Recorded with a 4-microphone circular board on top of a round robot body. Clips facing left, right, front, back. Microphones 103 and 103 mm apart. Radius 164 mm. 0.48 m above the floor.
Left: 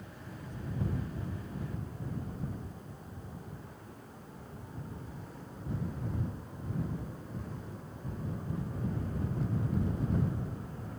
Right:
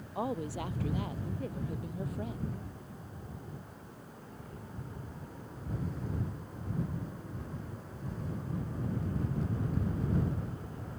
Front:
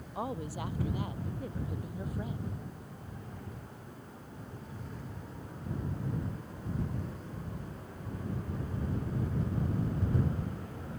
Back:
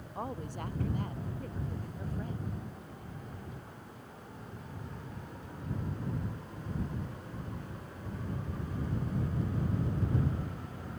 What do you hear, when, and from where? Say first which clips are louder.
0.1 s a woman speaking: right 15 dB, front 2 dB; 85° right; by 2.4 s 80° right